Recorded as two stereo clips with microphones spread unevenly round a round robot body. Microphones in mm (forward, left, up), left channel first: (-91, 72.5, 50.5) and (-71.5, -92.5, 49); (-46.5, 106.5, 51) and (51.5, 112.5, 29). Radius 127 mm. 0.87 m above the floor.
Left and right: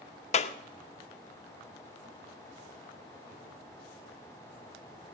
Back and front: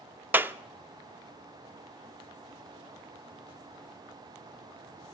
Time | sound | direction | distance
0.3 | a clap | 60° left | 0.7 m